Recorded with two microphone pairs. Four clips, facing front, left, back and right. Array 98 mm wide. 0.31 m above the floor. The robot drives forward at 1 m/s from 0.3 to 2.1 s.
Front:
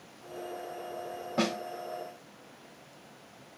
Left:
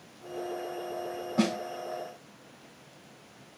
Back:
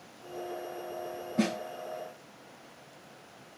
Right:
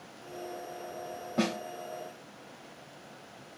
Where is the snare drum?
5° right, 1.1 m.